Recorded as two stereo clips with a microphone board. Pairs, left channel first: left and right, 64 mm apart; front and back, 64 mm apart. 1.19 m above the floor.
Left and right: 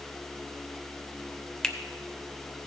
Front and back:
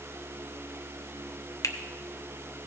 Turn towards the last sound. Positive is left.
turn(degrees=10)